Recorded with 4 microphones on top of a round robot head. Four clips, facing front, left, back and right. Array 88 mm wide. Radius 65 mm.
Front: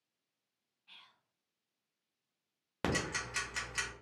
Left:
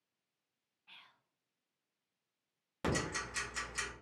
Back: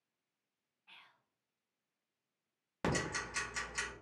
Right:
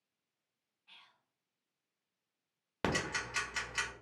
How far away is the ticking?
About 0.8 m.